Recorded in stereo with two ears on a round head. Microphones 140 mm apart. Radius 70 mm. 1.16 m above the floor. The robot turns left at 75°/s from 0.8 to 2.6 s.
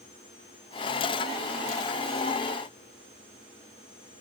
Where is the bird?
No bird in this recording.